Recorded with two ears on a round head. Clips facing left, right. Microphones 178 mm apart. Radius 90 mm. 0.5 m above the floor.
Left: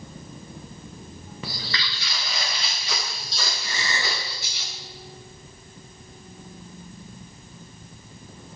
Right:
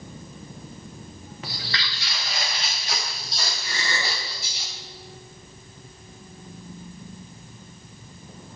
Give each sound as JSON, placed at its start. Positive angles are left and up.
{"t": 1.4, "sound": "footsteps", "side_deg": 80, "distance_m": 3.0}
{"t": 3.6, "sound": "a gasp", "side_deg": 75, "distance_m": 4.5}